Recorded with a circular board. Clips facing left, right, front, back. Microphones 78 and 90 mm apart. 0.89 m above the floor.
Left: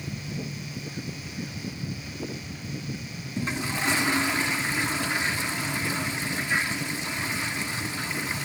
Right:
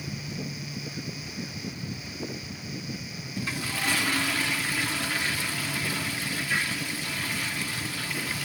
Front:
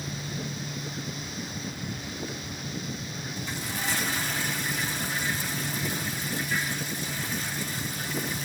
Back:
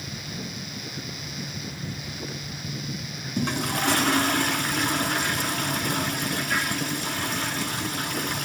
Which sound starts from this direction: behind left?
A toilet flushing, at 3.4 s.